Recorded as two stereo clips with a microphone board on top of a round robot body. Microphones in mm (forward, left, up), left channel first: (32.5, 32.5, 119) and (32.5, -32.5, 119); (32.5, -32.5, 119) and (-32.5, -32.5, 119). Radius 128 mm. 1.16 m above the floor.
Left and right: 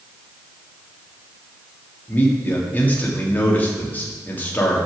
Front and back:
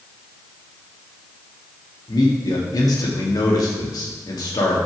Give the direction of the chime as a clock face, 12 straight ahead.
I don't hear a chime.